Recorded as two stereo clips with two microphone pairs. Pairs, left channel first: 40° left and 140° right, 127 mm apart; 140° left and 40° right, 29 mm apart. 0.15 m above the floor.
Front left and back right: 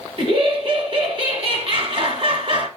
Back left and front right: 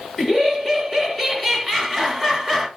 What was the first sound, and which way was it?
Laughter, 135° right.